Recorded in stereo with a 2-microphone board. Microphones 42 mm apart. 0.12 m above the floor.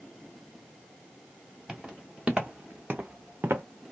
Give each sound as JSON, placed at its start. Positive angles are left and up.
{"t": 1.7, "sound": "footsteps", "side_deg": -15, "distance_m": 1.3}